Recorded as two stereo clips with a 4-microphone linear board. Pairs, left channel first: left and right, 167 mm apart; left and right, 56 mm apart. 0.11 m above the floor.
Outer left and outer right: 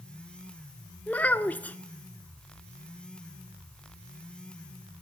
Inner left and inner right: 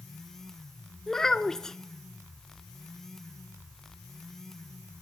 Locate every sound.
1.1 s a child speaking: 10° left (ahead or behind), 0.6 m